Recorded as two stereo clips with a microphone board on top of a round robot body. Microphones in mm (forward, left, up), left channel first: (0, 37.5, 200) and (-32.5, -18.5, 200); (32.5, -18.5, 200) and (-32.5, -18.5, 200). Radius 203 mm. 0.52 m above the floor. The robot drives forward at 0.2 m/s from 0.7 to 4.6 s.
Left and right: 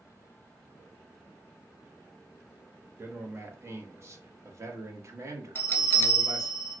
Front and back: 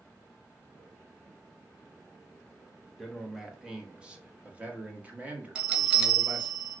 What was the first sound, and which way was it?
A man speaking, 90° right.